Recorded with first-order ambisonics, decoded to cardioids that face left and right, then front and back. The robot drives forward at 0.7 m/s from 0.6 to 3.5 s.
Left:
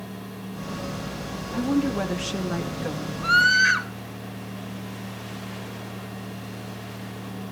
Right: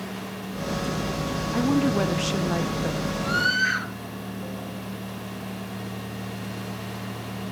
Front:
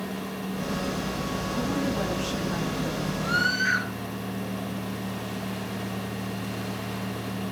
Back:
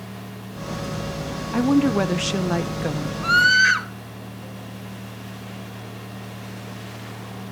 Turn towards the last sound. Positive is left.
turn(degrees=165)